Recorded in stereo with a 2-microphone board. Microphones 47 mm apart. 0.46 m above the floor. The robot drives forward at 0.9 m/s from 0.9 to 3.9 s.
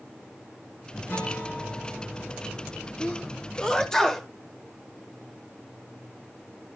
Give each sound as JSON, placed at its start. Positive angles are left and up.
{"t": 1.1, "sound": "a guitar", "side_deg": 50, "distance_m": 2.0}
{"t": 3.0, "sound": "a sneeze", "side_deg": 30, "distance_m": 0.8}